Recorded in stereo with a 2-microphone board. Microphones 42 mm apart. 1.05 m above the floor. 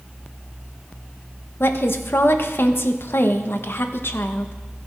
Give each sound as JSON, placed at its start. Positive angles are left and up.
{"t": 1.6, "sound": "a woman speaking", "side_deg": 60, "distance_m": 0.8}